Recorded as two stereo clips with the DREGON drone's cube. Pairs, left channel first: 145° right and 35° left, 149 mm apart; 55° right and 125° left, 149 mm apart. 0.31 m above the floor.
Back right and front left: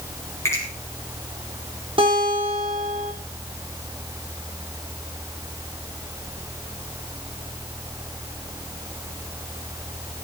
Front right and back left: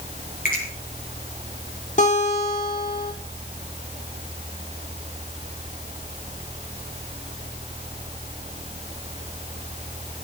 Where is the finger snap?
75° right, 7 m.